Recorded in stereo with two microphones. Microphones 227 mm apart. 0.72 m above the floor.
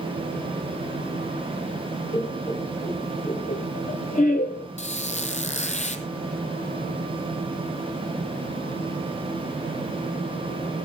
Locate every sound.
2.1 s laughter: 20° left (ahead or behind), 2.0 m; by 4.7 s 40° left (ahead or behind), 1.0 m
4.8 s a squeak: 30° left (ahead or behind), 1.3 m